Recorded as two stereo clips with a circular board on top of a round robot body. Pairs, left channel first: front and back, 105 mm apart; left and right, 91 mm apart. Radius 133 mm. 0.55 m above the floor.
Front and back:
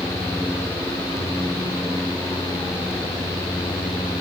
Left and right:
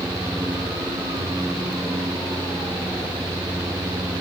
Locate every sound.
Only background noise.